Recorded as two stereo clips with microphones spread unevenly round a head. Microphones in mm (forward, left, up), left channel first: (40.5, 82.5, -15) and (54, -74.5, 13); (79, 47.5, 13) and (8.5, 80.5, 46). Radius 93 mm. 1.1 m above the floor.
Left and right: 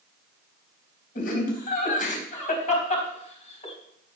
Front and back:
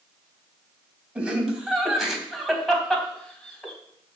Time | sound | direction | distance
1.1 | laughter | 70° left | 4 m